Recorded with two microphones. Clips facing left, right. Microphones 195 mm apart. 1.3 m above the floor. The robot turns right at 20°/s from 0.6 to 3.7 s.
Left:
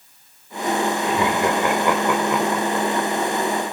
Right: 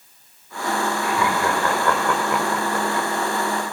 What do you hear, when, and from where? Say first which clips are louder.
1.0 s laughter: left 2 dB; 30° left (ahead or behind), 4.5 m; by 3.1 s 10° right (ahead or behind), 4.5 m